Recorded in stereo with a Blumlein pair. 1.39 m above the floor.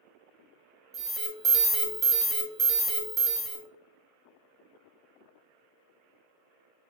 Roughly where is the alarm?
Ahead right.